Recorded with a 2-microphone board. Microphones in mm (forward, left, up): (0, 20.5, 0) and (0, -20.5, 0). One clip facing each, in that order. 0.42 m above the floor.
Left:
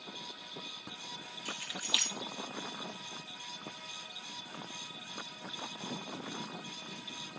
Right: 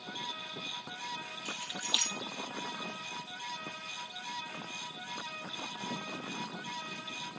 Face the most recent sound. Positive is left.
turn(degrees=25)  # may be behind; listen again after turning